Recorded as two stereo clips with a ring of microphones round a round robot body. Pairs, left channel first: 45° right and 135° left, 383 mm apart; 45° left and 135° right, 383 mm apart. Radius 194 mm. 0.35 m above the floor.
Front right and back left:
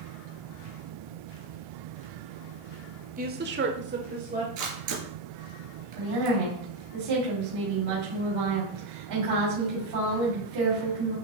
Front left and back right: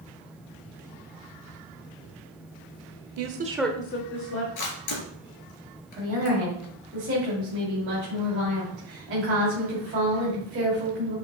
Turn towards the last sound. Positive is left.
turn(degrees=170)